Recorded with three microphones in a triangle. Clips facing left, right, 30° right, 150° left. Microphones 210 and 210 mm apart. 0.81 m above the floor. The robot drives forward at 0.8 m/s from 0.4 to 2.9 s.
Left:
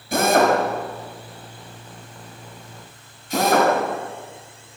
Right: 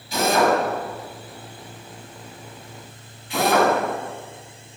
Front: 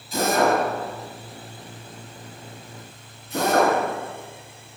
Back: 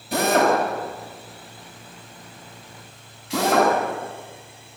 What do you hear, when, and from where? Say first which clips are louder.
0.1 s a drill: left 2 dB, back 1 dB; 125° left, 6.5 m; by 3.7 s 135° left, 8 m